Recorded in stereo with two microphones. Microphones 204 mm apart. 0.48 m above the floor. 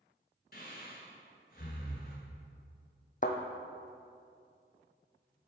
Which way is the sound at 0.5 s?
50° left (ahead or behind).